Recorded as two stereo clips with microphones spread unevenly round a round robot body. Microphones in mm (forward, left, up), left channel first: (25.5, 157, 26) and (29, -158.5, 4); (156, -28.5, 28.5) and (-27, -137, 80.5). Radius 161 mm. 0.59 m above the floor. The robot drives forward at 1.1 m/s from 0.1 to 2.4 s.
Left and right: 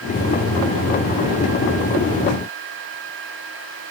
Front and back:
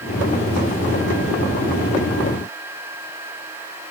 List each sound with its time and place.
Only background noise.